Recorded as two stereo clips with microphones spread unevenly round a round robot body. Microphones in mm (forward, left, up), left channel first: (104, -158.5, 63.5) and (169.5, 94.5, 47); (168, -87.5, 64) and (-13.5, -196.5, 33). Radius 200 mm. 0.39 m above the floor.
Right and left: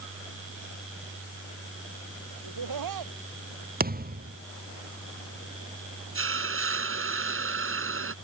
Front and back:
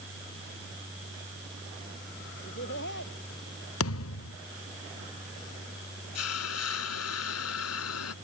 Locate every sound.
2.4 s laughter: 95° left
3.8 s a thud: 20° left
6.2 s a hiss: 35° left